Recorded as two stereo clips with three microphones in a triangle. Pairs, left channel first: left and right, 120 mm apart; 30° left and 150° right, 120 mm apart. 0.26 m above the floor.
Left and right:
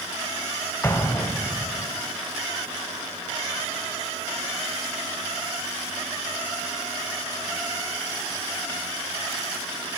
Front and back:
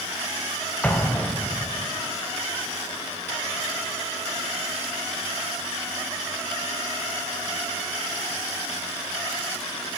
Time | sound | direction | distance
0.8 | an explosion | 80° left | 1.6 m